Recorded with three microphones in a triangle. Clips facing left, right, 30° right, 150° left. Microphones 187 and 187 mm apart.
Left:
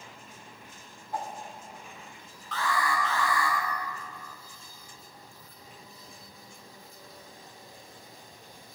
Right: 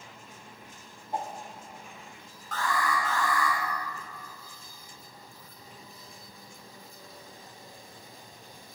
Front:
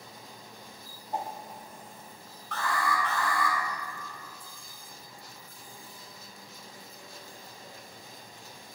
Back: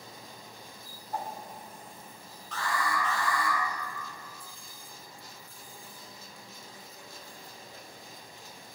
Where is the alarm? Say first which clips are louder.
Even, front 2 dB; 50° right, 4 m.